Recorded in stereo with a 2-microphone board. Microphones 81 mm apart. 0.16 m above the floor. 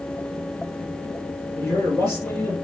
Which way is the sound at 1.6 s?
10° left (ahead or behind).